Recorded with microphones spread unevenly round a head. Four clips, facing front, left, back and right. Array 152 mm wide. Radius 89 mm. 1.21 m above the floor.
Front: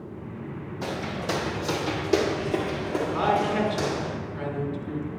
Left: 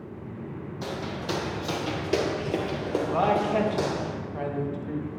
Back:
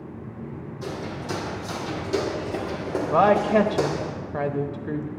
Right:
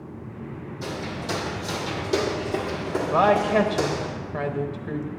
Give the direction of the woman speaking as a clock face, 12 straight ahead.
5 o'clock.